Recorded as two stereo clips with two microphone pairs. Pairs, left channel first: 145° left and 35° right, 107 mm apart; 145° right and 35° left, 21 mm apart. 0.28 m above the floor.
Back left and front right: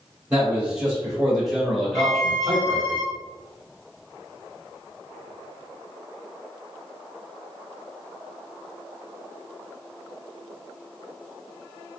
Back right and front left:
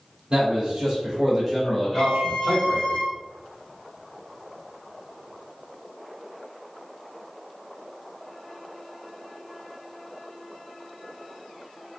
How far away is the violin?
About 1.5 m.